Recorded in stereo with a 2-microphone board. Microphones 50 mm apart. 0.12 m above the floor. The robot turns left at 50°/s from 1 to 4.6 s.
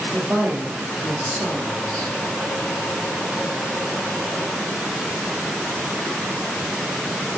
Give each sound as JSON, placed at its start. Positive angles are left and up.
{"t": 0.1, "sound": "a woman speaking", "azimuth_deg": -150, "distance_m": 4.0}